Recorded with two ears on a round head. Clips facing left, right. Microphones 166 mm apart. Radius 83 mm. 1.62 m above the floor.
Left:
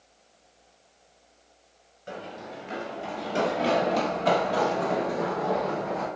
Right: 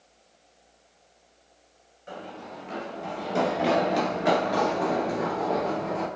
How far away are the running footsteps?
About 1.7 m.